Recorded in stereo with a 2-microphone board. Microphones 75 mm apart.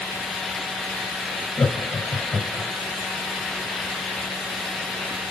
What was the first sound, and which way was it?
Laughter, 55° left (ahead or behind).